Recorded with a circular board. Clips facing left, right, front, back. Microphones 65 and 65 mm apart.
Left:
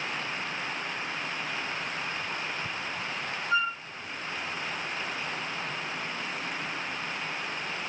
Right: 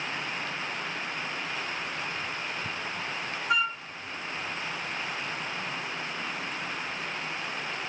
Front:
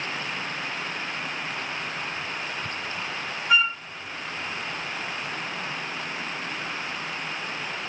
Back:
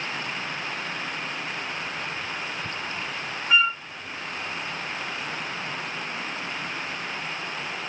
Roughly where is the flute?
Right.